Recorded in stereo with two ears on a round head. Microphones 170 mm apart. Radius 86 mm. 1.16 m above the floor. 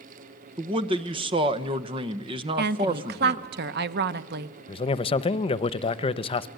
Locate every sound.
0.6 s a man speaking: 25° right (ahead or behind), 1.0 m
2.6 s a woman speaking: 60° right (ahead or behind), 0.8 m
4.7 s a man speaking: 30° left (ahead or behind), 0.7 m